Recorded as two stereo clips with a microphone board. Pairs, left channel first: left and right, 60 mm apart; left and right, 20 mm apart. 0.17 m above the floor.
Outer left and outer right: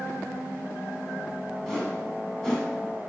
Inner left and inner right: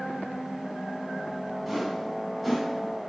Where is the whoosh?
10° left (ahead or behind), 1.2 m.